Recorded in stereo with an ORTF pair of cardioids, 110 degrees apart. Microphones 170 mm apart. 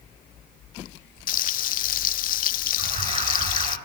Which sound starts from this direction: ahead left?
Frying, at 1.3 s.